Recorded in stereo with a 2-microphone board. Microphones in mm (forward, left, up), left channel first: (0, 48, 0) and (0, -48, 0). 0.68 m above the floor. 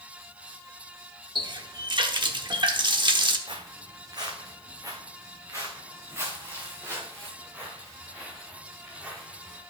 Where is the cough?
I don't hear a cough.